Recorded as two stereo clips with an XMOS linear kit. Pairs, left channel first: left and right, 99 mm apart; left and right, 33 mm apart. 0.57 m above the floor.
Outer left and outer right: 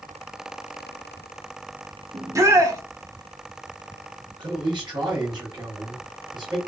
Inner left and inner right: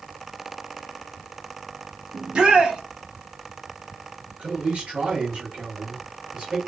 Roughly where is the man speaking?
Right.